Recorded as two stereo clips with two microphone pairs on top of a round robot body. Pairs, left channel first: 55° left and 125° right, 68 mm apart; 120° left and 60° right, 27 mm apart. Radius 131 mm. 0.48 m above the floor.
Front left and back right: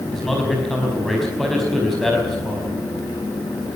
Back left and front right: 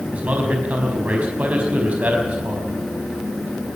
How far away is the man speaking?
About 5 m.